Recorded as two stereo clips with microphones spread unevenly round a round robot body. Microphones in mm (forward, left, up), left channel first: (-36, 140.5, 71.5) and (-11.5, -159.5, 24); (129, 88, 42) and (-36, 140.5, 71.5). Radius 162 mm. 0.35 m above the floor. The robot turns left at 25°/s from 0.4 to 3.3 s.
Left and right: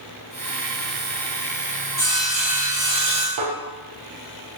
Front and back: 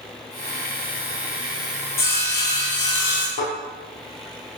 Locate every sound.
2.0 s sawing: 15° left, 4 m; by 3.3 s 20° right, 4 m
3.4 s a thud: 45° right, 4 m